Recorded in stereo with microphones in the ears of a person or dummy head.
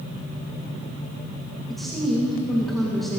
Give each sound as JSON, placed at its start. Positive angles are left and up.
{"t": 1.7, "sound": "a woman speaking", "side_deg": -5, "distance_m": 2.0}